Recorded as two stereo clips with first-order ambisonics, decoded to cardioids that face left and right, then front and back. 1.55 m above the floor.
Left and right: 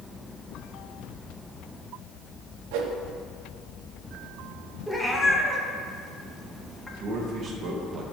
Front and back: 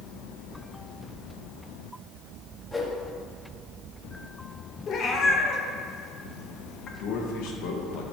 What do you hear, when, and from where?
2.7 s a whoosh: 80° right, 0.9 m
4.9 s a cat meowing: 10° left, 0.8 m
7.0 s a man speaking: 25° right, 1.3 m